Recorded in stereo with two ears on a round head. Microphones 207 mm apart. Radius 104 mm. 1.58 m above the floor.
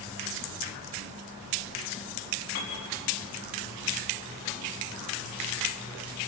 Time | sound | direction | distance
2.5 | a piano | 40° left (ahead or behind) | 6.5 m